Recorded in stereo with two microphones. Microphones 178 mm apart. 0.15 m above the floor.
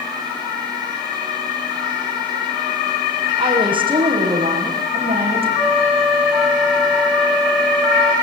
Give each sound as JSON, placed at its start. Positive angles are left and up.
{"t": 3.4, "sound": "a woman speaking", "side_deg": -25, "distance_m": 7.5}
{"t": 5.6, "sound": "a flute", "side_deg": -5, "distance_m": 0.9}